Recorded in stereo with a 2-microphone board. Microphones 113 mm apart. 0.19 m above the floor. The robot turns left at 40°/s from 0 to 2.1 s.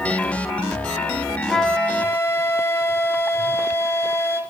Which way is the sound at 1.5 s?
Centre (ahead or behind).